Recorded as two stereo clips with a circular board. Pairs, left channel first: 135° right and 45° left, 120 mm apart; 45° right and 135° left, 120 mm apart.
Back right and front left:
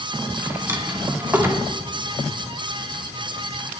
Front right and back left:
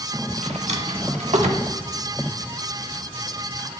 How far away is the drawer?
About 1.0 m.